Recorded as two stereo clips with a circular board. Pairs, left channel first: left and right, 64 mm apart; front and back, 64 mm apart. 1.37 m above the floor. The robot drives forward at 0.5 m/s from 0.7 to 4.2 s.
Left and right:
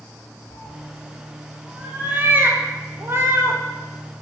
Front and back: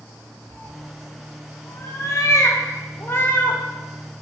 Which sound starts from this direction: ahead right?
A cat meowing, at 0.5 s.